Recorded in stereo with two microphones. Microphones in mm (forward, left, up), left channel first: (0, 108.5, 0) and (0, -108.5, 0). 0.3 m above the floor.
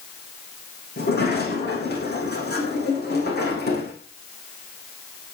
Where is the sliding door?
45° left (ahead or behind), 8.5 m.